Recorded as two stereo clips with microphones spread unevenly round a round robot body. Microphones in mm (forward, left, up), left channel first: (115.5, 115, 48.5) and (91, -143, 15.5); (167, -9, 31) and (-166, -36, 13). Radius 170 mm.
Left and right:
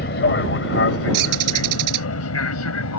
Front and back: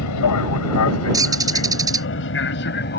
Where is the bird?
95° right.